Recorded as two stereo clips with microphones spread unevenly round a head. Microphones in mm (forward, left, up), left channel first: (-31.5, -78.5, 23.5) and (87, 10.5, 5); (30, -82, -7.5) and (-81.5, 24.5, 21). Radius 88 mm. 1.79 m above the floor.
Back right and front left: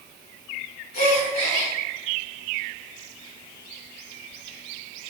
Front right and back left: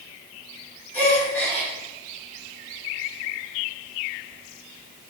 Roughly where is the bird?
I don't hear a bird.